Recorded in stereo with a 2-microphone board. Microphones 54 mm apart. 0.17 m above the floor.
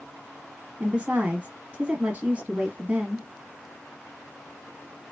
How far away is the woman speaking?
About 1.2 m.